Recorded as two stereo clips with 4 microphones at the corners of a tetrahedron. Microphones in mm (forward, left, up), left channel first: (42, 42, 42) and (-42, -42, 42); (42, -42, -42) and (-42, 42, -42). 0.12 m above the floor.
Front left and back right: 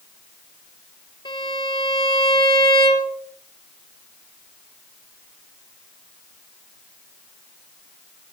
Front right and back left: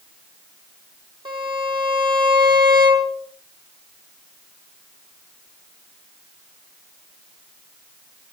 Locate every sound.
1.2 s a violin: 95° left, 3 m